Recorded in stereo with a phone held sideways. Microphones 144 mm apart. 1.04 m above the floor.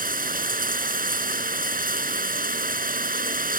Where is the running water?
80° right.